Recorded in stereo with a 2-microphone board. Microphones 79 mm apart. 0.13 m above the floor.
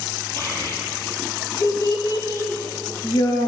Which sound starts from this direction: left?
A child speaking, at 0.4 s.